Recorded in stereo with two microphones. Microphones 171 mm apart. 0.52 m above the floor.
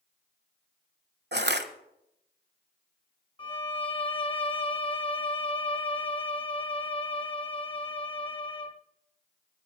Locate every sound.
1.3 s crushing: 85° right, 1.3 m
3.4 s a violin: 30° left (ahead or behind), 0.9 m